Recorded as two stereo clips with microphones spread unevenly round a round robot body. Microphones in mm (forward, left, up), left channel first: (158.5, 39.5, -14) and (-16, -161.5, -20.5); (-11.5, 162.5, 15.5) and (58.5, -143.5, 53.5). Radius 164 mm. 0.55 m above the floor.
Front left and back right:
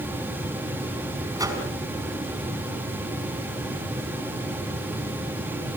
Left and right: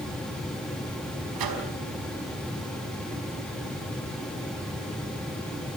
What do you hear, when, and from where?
1.4 s a microwave: 55° right, 5 m